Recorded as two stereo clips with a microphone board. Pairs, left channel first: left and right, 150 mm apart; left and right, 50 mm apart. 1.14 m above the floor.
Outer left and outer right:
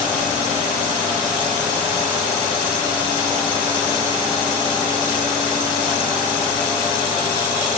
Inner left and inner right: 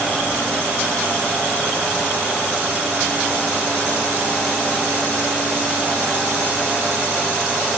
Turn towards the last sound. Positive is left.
No sound to turn to.